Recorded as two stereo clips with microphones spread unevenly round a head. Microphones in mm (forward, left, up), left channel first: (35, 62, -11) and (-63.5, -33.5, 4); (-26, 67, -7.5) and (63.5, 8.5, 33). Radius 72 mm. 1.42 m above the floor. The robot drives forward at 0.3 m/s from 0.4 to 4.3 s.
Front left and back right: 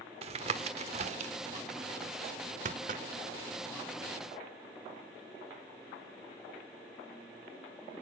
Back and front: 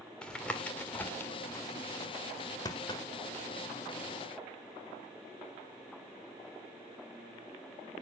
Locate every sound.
0.2 s tapping: 115° right, 1.5 m; by 3.0 s 140° right, 1.9 m